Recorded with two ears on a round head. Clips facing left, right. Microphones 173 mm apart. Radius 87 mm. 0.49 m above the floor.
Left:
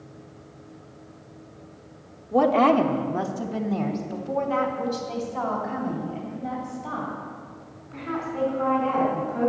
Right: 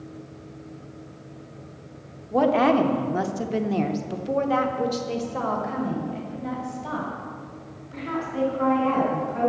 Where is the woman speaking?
Centre (ahead or behind), 1.0 m; by 9.5 s 40° right (ahead or behind), 4.5 m.